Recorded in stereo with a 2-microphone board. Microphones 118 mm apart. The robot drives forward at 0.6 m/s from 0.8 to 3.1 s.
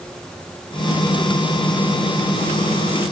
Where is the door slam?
I don't hear a door slam.